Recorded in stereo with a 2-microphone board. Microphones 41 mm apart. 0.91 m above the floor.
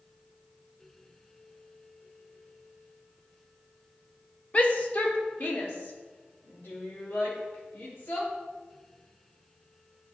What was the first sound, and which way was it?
A shout, 30° left (ahead or behind).